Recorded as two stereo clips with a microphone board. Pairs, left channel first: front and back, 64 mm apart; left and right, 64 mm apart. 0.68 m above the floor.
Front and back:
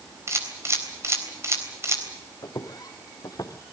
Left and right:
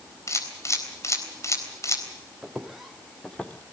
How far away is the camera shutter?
About 4 m.